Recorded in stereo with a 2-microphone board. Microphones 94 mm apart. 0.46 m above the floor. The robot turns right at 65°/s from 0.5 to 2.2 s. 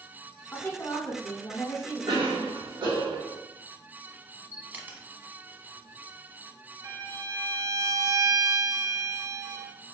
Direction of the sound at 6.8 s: 40° right (ahead or behind).